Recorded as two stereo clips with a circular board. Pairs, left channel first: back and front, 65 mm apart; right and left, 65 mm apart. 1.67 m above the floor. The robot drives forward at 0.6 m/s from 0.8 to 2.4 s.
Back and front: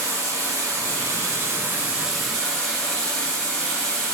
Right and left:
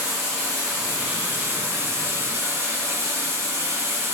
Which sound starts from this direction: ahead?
Running water, at 0.0 s.